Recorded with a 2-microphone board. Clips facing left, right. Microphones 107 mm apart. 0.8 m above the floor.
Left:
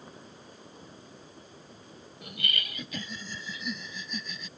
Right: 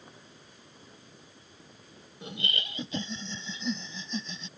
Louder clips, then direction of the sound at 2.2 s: Right 1 dB; 25° right (ahead or behind).